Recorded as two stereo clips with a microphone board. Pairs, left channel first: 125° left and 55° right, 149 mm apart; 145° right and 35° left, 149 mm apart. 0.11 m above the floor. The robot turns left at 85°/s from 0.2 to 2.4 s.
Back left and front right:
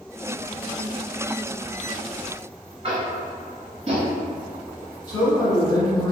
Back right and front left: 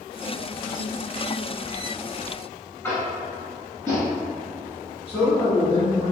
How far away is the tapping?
About 1.0 m.